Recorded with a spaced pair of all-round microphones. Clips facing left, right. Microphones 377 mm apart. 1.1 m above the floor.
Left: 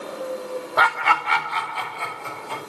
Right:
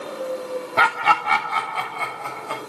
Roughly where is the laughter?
Right.